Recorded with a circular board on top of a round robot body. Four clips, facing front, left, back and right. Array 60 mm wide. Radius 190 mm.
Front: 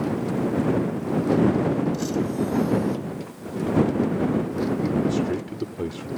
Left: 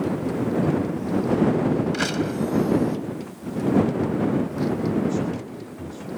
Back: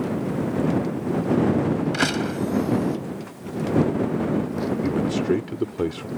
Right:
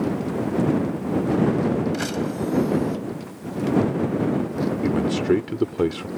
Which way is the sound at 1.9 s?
165° left.